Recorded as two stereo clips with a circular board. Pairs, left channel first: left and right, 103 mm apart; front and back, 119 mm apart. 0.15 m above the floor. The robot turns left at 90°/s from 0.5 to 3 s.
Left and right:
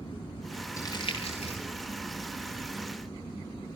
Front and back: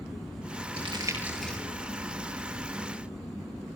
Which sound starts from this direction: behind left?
Crumpling, at 0.8 s.